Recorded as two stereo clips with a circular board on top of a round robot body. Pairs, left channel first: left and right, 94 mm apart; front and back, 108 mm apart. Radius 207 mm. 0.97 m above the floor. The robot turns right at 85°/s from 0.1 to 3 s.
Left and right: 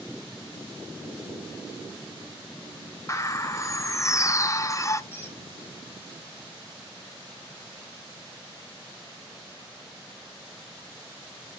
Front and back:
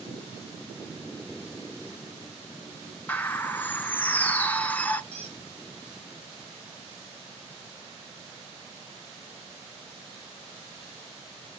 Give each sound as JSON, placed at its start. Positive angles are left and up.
{"t": 3.1, "sound": "a bird", "azimuth_deg": 65, "distance_m": 0.9}
{"t": 5.1, "sound": "a squeak", "azimuth_deg": 155, "distance_m": 1.3}